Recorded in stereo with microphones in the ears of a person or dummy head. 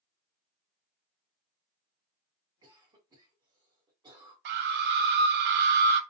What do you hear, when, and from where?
2.6 s a cough: 10° right (ahead or behind), 1.1 m
4.5 s a scream: 60° right (ahead or behind), 0.6 m